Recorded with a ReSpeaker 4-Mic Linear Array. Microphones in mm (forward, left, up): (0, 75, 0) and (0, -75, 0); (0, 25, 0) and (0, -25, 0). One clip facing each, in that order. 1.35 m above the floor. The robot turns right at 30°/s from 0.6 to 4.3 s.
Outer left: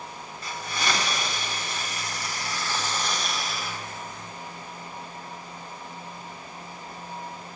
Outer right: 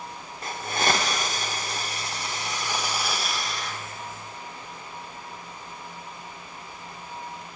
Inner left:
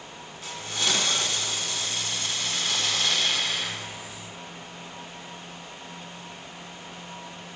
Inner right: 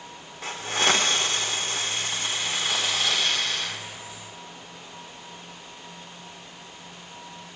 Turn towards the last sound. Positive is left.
turn(degrees=25)